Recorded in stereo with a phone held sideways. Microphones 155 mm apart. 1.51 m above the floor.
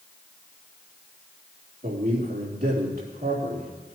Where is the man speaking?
75° right (ahead or behind), 3.5 m.